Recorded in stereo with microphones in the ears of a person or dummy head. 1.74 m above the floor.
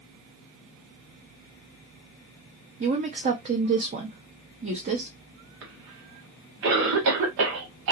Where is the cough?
65° right (ahead or behind), 1.6 m.